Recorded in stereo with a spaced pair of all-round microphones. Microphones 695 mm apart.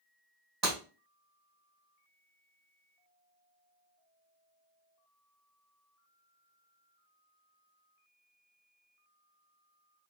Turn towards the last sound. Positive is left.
turn(degrees=-40)  # may be behind; listen again after turning